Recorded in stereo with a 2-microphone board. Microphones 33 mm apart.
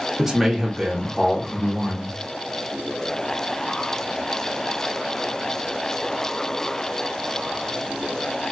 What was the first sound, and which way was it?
A man speaking, 15° right (ahead or behind).